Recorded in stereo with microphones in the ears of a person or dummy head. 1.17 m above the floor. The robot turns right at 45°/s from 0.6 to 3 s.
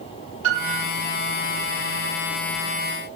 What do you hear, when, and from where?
0.4 s a piano: 40° right (ahead or behind), 1.3 m; by 0.8 s 30° right (ahead or behind), 1.3 m